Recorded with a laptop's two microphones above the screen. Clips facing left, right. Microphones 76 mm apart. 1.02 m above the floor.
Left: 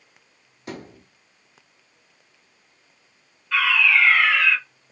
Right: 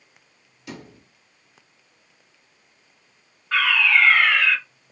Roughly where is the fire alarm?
Right.